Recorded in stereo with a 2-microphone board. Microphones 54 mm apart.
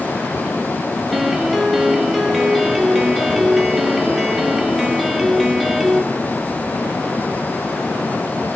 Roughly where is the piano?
Centre.